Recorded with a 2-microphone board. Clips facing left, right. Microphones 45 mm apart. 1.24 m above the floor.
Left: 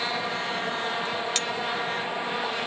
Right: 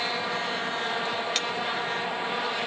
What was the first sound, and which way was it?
A clink, 5° right (ahead or behind).